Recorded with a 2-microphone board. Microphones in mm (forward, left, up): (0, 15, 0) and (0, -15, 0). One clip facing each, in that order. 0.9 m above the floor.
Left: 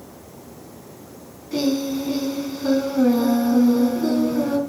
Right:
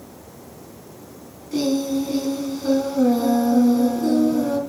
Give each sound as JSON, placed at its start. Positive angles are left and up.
{"t": 1.5, "sound": "singing", "side_deg": 10, "distance_m": 2.5}